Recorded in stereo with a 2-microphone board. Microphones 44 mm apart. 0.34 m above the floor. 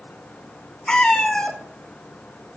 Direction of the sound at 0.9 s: 20° left (ahead or behind).